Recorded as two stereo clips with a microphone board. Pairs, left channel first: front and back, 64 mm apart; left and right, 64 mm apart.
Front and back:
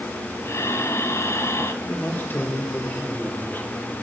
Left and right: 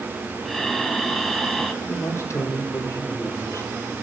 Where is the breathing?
5° left, 1.5 m.